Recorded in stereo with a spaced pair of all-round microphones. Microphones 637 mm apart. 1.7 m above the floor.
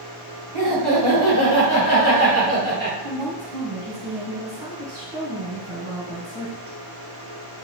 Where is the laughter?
55° right (ahead or behind), 1.7 m; by 2.9 s 15° right (ahead or behind), 3 m.